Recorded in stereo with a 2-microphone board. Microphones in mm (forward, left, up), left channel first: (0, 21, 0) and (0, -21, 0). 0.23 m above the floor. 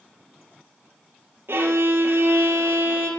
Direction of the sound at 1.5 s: 65° right (ahead or behind).